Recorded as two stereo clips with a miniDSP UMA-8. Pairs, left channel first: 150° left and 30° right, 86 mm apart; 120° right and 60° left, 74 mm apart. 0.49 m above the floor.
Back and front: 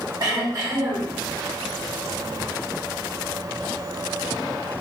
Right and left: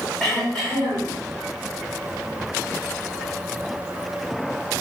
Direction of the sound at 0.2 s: 40° right.